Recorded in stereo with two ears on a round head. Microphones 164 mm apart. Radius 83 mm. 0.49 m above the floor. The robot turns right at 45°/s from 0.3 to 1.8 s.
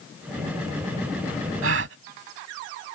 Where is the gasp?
70° right (ahead or behind); by 2.0 s 65° right (ahead or behind).